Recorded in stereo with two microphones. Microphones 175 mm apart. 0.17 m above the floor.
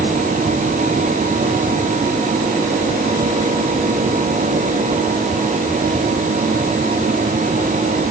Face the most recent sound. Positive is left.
No sound to turn to.